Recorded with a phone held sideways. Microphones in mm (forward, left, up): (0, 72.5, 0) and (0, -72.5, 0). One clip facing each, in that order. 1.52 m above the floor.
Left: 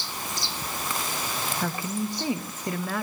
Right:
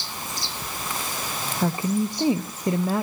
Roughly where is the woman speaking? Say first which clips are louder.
Right 9 dB; right.